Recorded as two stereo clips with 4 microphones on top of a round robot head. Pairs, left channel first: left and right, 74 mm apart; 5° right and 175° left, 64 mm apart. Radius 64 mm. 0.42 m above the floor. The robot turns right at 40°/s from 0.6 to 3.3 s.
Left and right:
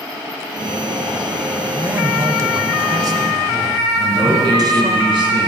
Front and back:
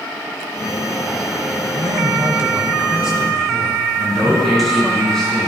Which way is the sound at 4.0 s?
90° right.